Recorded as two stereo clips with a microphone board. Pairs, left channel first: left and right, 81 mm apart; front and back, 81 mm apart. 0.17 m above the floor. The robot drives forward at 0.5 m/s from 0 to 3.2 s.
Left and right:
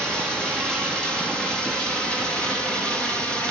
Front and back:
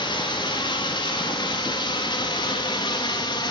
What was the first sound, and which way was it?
Running water, 10° left.